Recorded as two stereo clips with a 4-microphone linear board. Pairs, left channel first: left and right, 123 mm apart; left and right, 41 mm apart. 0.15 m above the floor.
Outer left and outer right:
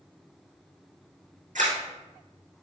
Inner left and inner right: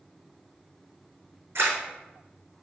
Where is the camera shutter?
80° right, 4 m.